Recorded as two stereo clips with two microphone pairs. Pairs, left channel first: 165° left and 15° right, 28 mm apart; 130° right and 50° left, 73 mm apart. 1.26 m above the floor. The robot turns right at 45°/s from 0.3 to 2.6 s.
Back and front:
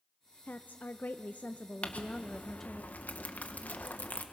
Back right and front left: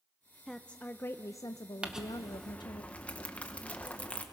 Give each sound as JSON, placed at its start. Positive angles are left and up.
{"t": 0.5, "sound": "a woman speaking", "azimuth_deg": 145, "distance_m": 0.5}
{"t": 1.8, "sound": "crumpling", "azimuth_deg": 125, "distance_m": 1.3}